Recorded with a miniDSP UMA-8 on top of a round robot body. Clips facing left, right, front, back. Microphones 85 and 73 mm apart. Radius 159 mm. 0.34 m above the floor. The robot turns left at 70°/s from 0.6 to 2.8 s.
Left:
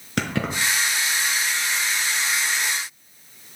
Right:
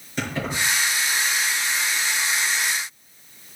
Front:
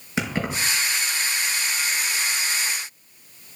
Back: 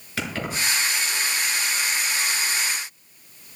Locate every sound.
0.2 s keys jangling: 70° left, 5 m